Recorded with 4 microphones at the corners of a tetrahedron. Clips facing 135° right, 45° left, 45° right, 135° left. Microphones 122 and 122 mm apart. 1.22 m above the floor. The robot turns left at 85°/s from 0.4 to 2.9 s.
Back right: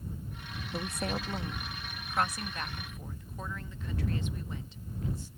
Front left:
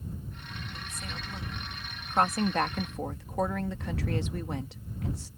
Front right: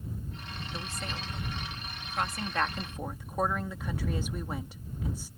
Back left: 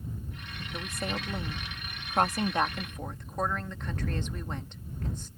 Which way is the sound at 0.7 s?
140° right.